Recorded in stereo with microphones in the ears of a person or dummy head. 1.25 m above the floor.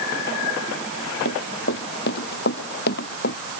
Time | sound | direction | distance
1.2 | running footsteps | 65° left (ahead or behind) | ?